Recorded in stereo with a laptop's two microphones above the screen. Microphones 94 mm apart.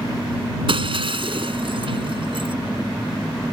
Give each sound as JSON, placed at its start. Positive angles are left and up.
{"t": 0.7, "sound": "breaking glass", "side_deg": -65}